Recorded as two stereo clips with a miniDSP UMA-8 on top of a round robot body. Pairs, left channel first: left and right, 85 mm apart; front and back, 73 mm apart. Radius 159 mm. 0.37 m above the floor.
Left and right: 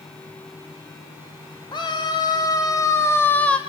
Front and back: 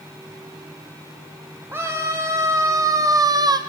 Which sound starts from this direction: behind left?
A scream, at 1.7 s.